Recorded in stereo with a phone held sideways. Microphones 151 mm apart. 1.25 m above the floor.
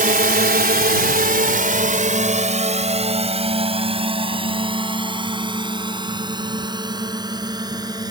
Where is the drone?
65° right (ahead or behind); by 8.1 s 25° right (ahead or behind).